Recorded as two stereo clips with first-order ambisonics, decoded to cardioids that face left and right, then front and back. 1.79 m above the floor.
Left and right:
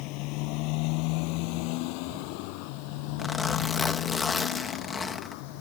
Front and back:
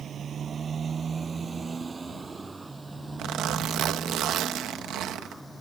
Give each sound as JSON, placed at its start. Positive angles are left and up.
{"t": 0.0, "sound": "a motorcycle", "azimuth_deg": 120}
{"t": 3.2, "sound": "a zipper", "azimuth_deg": 160}